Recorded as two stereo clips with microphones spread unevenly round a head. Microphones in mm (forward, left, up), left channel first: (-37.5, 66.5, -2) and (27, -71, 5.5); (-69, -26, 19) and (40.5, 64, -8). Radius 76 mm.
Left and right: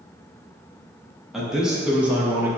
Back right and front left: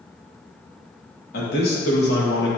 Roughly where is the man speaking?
Behind right.